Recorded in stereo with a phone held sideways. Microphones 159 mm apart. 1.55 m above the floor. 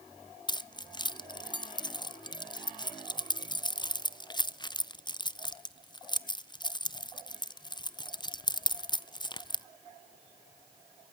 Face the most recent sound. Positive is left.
turn(degrees=30)  # may be behind; listen again after turning